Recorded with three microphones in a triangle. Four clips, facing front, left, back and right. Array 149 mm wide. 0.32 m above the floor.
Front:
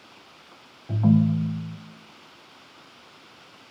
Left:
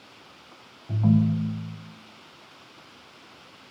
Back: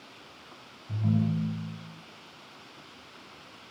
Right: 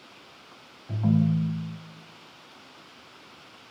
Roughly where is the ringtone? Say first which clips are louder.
Left 2 dB, front 8 dB; ahead.